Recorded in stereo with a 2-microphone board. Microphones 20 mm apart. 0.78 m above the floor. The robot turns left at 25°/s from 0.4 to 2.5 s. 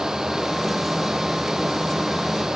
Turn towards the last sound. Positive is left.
No sound to turn to.